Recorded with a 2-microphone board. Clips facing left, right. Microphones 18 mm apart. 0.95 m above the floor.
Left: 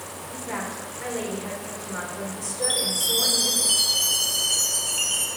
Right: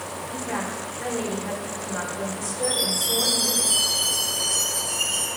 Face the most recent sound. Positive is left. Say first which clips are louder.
# even
turn(degrees=70)  # may be behind; listen again after turning